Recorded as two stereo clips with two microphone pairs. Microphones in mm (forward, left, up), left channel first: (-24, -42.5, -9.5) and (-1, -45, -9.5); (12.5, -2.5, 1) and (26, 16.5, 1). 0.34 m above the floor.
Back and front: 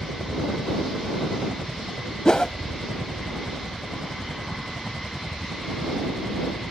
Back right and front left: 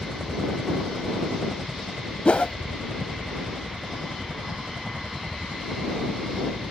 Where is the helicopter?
15° right; by 6.7 s 60° left.